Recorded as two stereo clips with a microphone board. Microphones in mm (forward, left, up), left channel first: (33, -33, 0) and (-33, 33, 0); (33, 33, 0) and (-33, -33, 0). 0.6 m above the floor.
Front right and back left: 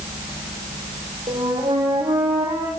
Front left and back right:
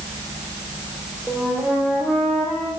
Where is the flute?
140° left, 6 m.